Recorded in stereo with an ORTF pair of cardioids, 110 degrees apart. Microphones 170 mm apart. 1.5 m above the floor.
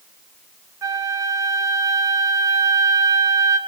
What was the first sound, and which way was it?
A flute, 20° right.